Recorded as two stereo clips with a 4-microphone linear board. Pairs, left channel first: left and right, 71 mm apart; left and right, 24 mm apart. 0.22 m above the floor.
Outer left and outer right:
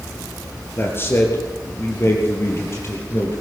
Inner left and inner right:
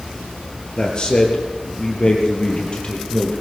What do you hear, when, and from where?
0.8 s a man speaking: 30° left (ahead or behind), 4 m; by 3.4 s 40° left (ahead or behind), 6 m